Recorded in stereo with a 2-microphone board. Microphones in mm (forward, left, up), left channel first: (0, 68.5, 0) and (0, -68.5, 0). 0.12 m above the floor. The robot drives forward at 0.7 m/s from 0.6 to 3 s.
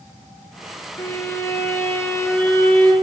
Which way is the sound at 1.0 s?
20° left (ahead or behind).